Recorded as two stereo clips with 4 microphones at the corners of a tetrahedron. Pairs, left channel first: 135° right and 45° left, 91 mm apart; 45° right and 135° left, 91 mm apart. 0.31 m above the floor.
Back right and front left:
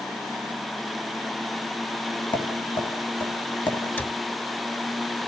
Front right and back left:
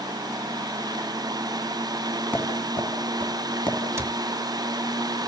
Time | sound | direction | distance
2.3 | tapping | 120° right | 3 m
4.0 | a cupboard door | 170° left | 0.9 m